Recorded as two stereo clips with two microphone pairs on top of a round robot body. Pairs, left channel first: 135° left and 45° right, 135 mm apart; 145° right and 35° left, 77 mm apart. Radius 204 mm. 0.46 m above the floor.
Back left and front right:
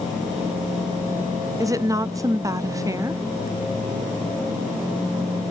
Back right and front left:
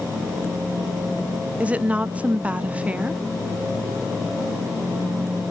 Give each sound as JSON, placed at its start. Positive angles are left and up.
{"t": 1.6, "sound": "a woman speaking", "azimuth_deg": -25, "distance_m": 0.8}